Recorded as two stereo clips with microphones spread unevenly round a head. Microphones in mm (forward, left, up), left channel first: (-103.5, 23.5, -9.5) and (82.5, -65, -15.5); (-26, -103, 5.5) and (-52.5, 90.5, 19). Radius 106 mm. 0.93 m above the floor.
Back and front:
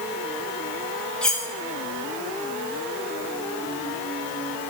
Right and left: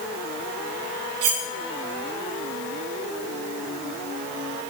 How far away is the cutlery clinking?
About 0.7 m.